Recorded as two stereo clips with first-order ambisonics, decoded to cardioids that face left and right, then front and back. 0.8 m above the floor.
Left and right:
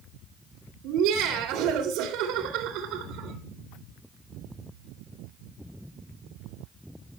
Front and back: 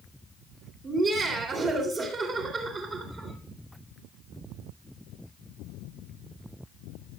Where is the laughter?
115° right, 2.5 m.